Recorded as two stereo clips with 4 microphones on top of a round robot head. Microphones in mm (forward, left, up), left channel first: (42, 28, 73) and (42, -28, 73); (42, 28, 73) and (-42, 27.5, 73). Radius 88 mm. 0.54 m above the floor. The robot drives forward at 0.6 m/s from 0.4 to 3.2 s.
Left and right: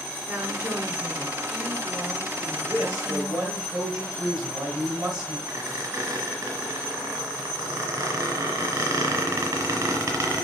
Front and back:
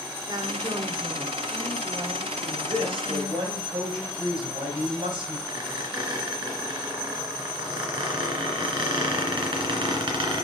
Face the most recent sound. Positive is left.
turn(degrees=-145)